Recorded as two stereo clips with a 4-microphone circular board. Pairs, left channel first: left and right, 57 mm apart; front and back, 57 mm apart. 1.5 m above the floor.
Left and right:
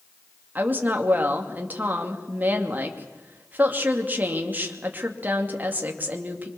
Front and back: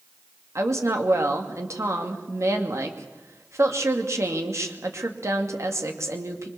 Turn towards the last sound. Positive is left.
turn(degrees=-150)